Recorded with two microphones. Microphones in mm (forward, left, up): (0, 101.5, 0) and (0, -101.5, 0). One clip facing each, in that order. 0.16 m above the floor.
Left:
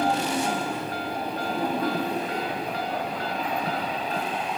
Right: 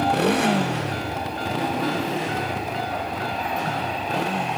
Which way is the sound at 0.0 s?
60° right (ahead or behind).